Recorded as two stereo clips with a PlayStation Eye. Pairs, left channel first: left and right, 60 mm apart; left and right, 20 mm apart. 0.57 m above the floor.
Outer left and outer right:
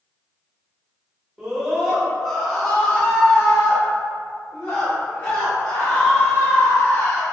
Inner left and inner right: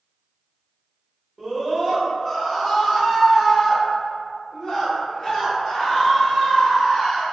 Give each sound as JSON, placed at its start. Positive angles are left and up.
{"t": 1.4, "sound": "a scream", "side_deg": -10, "distance_m": 1.4}